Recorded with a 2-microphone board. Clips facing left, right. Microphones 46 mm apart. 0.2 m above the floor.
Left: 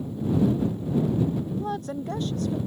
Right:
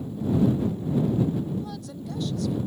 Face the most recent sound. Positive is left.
turn(degrees=40)  # may be behind; listen again after turning